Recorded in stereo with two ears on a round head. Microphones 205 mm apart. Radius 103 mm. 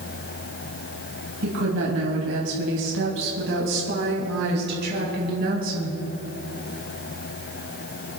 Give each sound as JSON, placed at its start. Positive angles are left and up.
{"t": 1.4, "sound": "a woman speaking", "side_deg": -70, "distance_m": 3.5}